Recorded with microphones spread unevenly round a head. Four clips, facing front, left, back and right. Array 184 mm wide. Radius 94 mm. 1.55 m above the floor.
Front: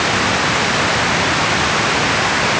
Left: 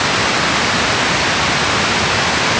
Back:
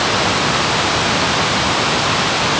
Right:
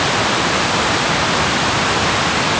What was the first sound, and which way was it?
Only background noise.